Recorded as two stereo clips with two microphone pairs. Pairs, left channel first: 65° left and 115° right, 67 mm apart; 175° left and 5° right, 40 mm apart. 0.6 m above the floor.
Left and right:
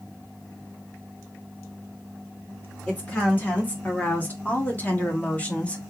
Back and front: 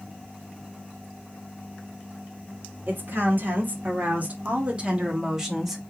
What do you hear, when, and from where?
2.9 s a woman speaking: 5° left, 2 m; by 5.8 s 95° left, 1.2 m